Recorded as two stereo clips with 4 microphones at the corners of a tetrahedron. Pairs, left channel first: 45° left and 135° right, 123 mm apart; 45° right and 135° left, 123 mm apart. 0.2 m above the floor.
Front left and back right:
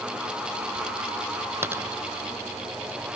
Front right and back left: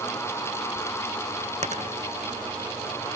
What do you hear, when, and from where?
1.6 s a dropped coin: 155° left